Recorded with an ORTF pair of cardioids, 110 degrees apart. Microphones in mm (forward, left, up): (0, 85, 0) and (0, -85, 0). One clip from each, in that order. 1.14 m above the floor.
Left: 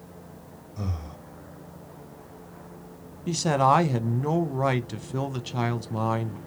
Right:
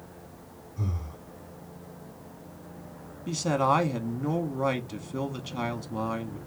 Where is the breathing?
70° left, 1.7 m.